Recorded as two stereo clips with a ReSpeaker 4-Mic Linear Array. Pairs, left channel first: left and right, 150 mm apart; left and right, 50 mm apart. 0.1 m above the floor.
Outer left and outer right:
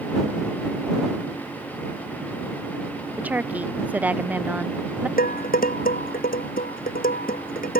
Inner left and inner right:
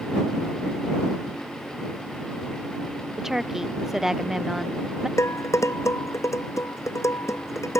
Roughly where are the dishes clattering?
Left.